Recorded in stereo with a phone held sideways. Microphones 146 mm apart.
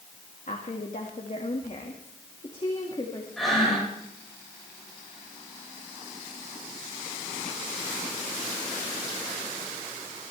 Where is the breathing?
Centre (ahead or behind), 7 m.